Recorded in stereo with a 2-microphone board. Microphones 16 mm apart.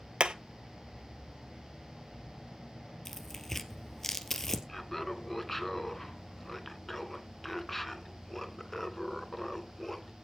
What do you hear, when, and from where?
0.2 s hammering: 75° right (ahead or behind), 0.9 m
3.0 s tearing paper: 20° left (ahead or behind), 1.7 m
4.7 s laughter: 10° left (ahead or behind), 1.8 m